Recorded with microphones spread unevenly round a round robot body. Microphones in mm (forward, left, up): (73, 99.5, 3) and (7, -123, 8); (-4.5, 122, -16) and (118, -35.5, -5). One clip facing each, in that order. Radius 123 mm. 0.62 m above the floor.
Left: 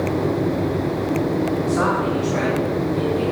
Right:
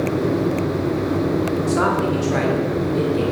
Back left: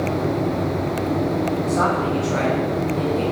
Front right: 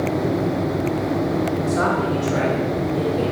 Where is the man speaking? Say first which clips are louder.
Right 1 dB, even; 115° right, 1.6 m; by 3.2 s 120° right, 3 m.